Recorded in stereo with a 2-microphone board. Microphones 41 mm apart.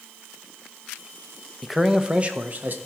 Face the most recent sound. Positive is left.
turn(degrees=-45)  # may be behind; listen again after turning